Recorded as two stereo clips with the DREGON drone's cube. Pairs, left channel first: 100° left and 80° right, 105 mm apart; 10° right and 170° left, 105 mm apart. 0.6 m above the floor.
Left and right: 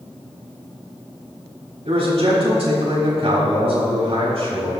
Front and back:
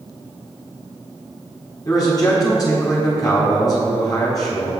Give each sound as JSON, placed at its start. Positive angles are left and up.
{"t": 1.9, "sound": "a man speaking", "azimuth_deg": -65, "distance_m": 3.5}